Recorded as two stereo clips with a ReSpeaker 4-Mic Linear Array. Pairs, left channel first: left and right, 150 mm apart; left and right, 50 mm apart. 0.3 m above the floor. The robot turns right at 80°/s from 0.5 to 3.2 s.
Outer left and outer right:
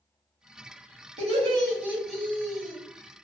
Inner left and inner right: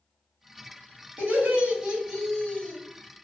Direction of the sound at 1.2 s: 75° right.